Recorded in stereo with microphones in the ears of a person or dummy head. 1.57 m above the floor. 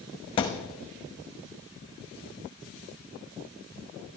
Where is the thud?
25° left (ahead or behind), 0.9 m.